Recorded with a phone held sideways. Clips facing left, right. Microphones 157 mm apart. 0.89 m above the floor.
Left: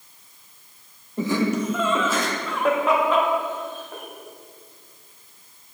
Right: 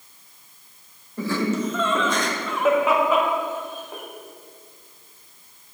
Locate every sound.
1.2 s laughter: 20° left (ahead or behind), 1.2 m; by 4.0 s 15° right (ahead or behind), 2.5 m